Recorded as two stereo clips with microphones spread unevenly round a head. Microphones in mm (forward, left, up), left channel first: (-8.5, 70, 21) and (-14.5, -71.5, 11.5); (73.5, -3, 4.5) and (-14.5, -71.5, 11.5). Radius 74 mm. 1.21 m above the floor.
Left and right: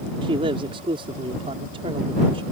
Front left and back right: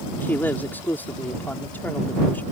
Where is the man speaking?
35° right.